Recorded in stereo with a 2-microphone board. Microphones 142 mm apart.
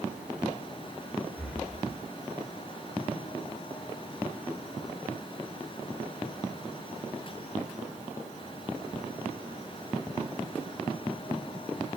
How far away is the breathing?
About 2.5 m.